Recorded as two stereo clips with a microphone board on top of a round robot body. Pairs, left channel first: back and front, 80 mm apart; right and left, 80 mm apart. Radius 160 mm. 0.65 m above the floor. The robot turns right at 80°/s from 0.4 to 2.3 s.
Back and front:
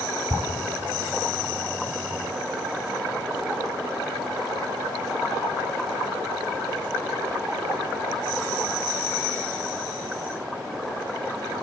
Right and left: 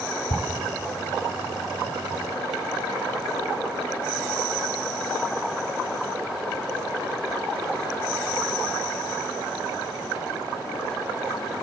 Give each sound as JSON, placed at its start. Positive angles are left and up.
{"t": 0.3, "sound": "ticking", "azimuth_deg": -85, "distance_m": 1.9}